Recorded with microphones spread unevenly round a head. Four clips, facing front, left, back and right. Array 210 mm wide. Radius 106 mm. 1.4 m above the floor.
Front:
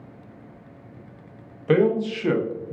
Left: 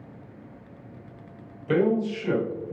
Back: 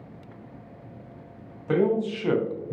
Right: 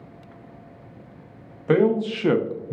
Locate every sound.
1.7 s a man speaking: 50° right, 0.8 m; by 2.7 s 110° right, 0.5 m